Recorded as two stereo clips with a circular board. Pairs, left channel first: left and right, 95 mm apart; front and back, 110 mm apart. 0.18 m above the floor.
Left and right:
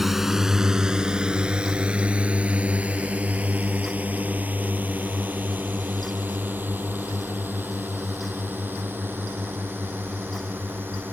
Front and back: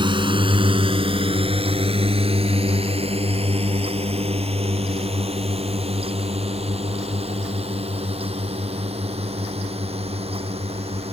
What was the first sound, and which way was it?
A drone, 175° right.